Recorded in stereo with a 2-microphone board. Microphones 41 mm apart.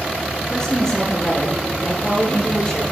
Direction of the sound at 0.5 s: 25° left (ahead or behind).